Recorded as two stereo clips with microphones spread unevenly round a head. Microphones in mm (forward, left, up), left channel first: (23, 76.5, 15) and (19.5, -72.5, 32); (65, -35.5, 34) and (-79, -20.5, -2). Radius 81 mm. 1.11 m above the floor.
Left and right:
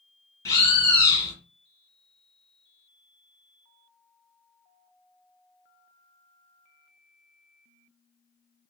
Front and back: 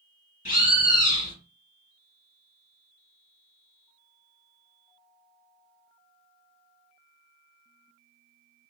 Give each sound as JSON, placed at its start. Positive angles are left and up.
{"t": 0.5, "sound": "a bird", "azimuth_deg": 20, "distance_m": 1.7}